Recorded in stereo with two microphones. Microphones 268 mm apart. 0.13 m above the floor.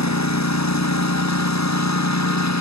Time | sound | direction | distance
0.0 | a lawn mower | 80° left | ?